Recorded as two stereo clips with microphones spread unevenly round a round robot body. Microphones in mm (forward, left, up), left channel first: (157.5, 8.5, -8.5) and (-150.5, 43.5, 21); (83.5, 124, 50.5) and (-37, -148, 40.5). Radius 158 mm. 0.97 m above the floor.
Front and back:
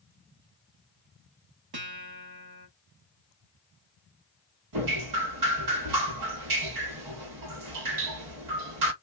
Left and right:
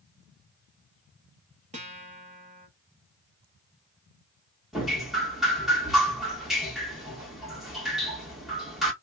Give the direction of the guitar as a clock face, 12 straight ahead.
6 o'clock.